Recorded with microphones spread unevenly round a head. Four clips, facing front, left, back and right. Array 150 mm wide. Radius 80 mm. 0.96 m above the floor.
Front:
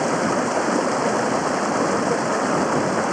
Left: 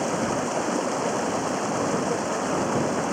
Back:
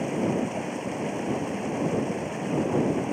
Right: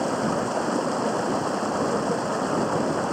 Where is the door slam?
I don't hear a door slam.